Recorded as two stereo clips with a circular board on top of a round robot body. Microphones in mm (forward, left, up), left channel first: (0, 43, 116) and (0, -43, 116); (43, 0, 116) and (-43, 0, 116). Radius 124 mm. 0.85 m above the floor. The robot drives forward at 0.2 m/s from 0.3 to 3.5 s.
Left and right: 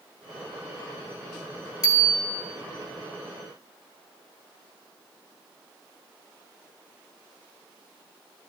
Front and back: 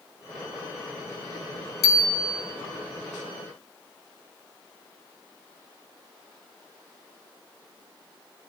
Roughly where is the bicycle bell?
Ahead left.